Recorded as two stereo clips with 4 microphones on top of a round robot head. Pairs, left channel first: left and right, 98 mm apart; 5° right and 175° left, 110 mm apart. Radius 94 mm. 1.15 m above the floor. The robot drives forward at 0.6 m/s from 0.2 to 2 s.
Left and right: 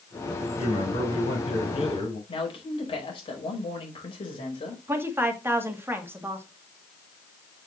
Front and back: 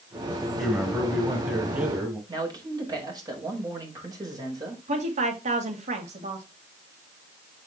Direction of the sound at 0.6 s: 95° left.